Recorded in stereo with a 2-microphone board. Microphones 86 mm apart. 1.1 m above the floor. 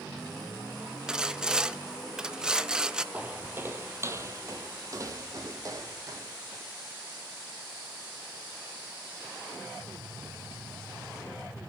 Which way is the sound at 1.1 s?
10° right (ahead or behind).